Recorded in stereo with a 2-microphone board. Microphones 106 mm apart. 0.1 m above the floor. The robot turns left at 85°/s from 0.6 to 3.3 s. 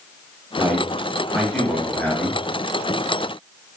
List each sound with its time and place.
0.6 s a man speaking: 15° right (ahead or behind), 1.2 m; by 2.4 s 20° left (ahead or behind), 1.2 m